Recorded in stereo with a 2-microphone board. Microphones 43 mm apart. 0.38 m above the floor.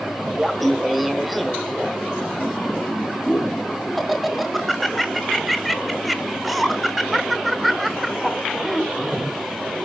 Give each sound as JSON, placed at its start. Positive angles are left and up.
{"t": 0.4, "sound": "laughter", "side_deg": 0, "distance_m": 0.8}